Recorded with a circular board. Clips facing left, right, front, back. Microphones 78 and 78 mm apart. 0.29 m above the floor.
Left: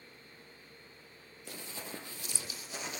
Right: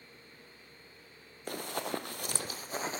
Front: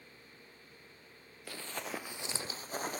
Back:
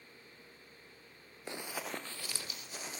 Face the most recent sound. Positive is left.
turn(degrees=-35)